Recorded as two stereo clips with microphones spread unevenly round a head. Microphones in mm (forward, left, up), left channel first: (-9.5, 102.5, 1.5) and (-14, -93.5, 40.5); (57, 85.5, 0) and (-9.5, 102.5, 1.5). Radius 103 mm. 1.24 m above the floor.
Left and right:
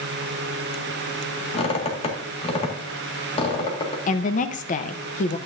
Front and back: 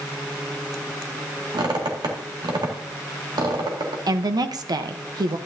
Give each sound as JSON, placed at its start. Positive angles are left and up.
{"t": 1.5, "sound": "a squeak", "azimuth_deg": 150, "distance_m": 2.0}
{"t": 4.1, "sound": "a woman speaking", "azimuth_deg": 140, "distance_m": 0.9}